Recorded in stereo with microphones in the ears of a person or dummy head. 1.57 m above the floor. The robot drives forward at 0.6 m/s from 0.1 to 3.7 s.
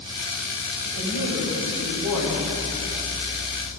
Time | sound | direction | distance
0.8 | a woman speaking | 70° right (ahead or behind) | 7.5 m